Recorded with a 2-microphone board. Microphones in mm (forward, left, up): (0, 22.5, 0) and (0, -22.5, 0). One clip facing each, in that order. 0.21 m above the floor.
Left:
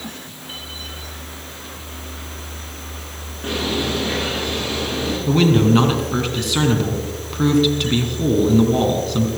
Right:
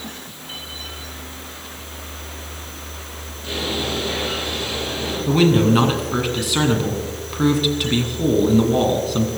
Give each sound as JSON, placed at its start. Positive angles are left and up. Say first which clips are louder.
{"t": 3.4, "sound": "a bird", "louder": "left 2 dB", "side_deg": 60, "distance_m": 9.0}
{"t": 5.3, "sound": "a man speaking", "louder": "even", "side_deg": 0, "distance_m": 2.5}